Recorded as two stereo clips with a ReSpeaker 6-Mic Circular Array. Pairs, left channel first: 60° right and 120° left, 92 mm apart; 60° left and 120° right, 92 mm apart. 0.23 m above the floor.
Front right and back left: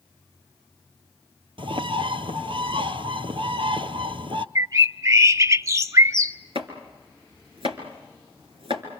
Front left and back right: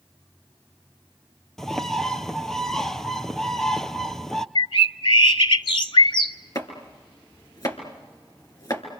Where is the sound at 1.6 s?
145° left, 1.0 m.